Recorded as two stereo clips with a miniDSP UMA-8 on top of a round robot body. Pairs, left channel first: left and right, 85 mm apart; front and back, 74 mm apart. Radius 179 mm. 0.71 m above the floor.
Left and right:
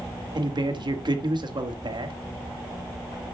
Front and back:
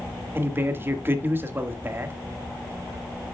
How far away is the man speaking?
About 1.6 m.